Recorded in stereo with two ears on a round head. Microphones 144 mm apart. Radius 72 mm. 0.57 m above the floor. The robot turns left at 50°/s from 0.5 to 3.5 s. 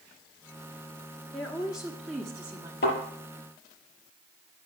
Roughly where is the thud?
Left.